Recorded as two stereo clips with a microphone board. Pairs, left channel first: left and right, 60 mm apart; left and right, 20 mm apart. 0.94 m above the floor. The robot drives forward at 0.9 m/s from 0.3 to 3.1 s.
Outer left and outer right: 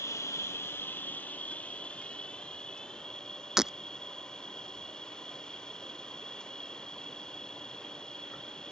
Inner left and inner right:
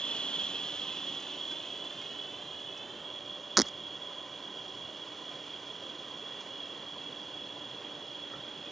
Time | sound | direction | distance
0.0 | an insect | 55° left (ahead or behind) | ?
3.6 | breaking glass | 10° right (ahead or behind) | ?